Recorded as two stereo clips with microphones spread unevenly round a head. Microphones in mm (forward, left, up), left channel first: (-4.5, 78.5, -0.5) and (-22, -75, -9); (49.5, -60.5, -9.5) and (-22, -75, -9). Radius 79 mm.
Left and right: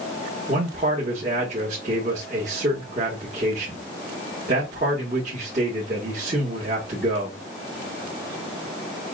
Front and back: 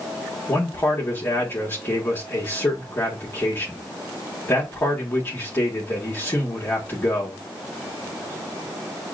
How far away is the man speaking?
About 1.7 m.